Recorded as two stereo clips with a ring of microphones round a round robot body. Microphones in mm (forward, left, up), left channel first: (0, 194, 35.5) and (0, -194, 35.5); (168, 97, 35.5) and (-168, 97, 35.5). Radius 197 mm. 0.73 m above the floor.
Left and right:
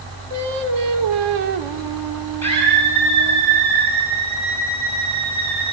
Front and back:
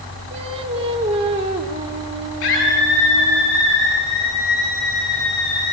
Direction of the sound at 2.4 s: 5° left.